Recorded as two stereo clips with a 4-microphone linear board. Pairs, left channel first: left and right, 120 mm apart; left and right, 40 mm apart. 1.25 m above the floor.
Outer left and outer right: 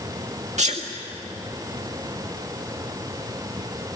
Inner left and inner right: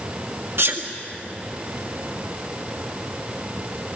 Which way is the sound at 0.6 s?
75° right (ahead or behind).